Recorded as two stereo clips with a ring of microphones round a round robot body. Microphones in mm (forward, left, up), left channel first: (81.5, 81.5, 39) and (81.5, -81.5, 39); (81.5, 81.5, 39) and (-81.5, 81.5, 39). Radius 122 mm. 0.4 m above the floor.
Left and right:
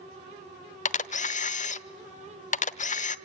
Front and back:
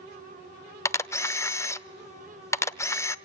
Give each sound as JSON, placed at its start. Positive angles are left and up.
{"t": 0.8, "sound": "a camera shutter", "azimuth_deg": 70, "distance_m": 0.9}